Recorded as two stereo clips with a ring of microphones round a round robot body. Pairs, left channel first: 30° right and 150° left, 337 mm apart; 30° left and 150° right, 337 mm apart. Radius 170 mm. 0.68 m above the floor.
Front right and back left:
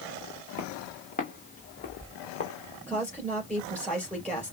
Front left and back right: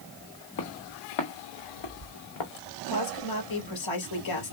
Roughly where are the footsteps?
Ahead left.